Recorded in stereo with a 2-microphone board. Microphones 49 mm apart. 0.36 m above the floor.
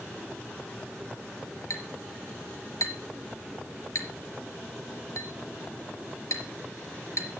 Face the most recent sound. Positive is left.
turn(degrees=75)  # may be behind; listen again after turning